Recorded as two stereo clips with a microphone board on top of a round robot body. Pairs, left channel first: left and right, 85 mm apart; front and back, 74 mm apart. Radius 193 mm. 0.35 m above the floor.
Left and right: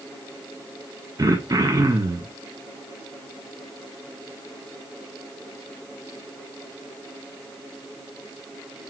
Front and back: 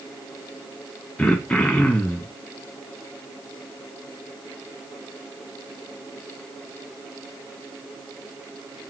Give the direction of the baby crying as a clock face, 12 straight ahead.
No baby crying in this recording.